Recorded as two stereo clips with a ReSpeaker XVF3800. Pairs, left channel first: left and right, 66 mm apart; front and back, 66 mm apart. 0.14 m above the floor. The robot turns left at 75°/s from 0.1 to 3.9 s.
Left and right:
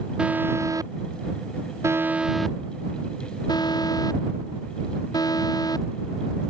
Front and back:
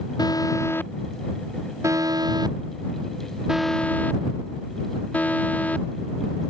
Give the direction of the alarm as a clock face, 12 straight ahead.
12 o'clock.